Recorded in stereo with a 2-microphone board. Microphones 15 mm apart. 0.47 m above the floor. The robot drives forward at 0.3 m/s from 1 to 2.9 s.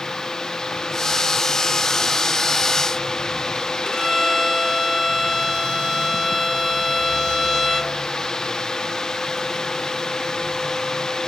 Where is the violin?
80° left, 2.5 m.